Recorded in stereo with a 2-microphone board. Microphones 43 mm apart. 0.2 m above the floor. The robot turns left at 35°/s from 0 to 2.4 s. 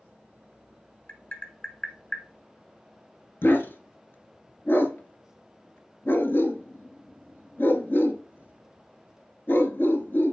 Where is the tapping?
55° left (ahead or behind), 1.2 m; by 2.2 s 20° left (ahead or behind), 1.2 m.